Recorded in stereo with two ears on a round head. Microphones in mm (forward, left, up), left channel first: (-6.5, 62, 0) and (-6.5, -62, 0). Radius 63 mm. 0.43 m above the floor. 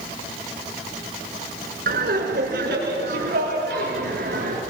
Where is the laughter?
70° right (ahead or behind), 5.5 m; by 4.6 s 65° right (ahead or behind), 7 m.